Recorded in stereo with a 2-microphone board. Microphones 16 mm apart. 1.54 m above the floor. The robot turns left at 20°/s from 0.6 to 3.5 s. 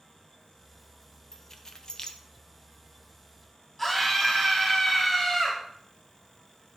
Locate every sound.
1.3 s keys jangling: 30° left (ahead or behind), 0.9 m; by 2.2 s 45° left (ahead or behind), 0.9 m
3.8 s a scream: 20° left (ahead or behind), 2.0 m